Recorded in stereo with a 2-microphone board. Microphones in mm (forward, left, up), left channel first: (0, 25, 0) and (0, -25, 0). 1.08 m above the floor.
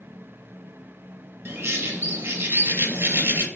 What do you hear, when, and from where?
1.4 s a bird: 50° right (ahead or behind), 0.5 m